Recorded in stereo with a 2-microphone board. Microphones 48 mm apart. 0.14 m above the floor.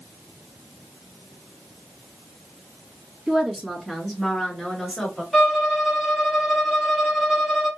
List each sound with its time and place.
3.3 s a woman speaking: 15° right (ahead or behind), 1.9 m; by 5.2 s 5° left (ahead or behind), 2.5 m
5.3 s a violin: centre (ahead or behind), 2.5 m